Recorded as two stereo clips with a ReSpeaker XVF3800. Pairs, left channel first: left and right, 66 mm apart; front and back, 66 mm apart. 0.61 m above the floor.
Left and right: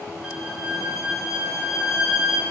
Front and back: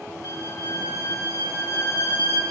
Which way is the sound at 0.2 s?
10° right.